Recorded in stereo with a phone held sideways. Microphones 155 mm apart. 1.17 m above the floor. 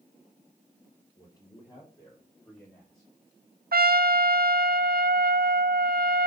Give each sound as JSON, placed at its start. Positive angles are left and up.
{"t": 1.1, "sound": "a man speaking", "side_deg": 30, "distance_m": 5.0}
{"t": 3.7, "sound": "a trumpet", "side_deg": -80, "distance_m": 0.6}